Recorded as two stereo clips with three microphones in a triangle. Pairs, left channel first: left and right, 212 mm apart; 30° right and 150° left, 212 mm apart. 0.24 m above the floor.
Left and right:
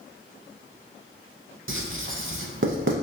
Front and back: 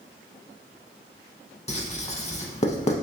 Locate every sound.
1.7 s writing: 90° right, 0.5 m